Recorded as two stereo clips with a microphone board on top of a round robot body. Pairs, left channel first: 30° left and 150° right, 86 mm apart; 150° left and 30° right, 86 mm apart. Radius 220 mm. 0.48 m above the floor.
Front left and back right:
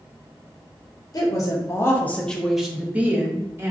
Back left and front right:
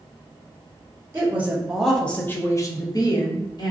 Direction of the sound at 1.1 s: 25° left.